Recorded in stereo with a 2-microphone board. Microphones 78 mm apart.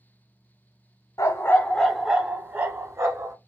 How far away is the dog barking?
About 0.7 m.